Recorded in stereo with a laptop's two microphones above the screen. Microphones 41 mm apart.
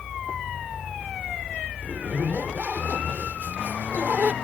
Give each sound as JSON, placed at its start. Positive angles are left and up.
{"t": 1.8, "sound": "a zipper", "side_deg": -45}